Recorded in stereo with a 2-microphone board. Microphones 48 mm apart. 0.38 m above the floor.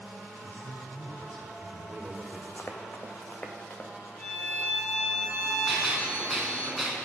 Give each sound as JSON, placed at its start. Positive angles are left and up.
{"t": 0.4, "sound": "a man speaking", "side_deg": 35, "distance_m": 1.5}
{"t": 2.6, "sound": "running footsteps", "side_deg": 45, "distance_m": 1.4}
{"t": 4.2, "sound": "a violin", "side_deg": 50, "distance_m": 6.0}
{"t": 5.7, "sound": "a gunshot", "side_deg": -5, "distance_m": 3.0}